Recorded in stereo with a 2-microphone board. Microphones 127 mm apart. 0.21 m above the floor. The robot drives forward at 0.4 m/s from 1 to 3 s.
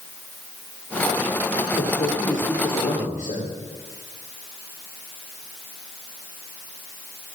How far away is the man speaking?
About 9 m.